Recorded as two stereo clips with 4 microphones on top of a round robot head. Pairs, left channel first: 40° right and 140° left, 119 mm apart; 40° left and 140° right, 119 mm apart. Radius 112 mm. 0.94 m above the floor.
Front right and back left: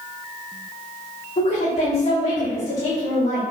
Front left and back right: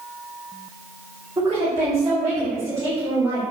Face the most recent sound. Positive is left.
turn(degrees=-70)